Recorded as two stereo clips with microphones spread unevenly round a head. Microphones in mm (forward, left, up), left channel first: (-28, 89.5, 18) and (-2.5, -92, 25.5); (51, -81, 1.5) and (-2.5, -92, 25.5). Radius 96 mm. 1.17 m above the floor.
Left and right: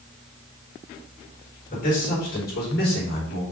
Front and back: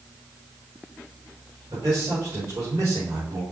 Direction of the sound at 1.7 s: 145° left.